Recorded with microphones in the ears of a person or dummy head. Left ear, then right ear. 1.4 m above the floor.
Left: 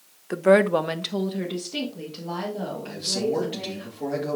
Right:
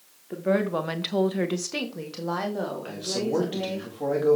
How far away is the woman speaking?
About 1.0 m.